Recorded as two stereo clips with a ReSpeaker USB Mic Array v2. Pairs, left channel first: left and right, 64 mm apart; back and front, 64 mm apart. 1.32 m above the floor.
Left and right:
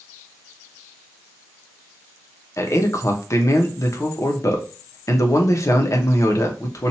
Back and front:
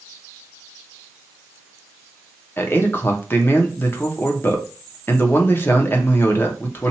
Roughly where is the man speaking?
Behind left.